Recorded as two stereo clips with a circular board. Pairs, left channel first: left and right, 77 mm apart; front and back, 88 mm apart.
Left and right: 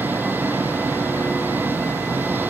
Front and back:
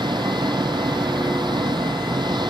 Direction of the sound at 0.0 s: 155° right.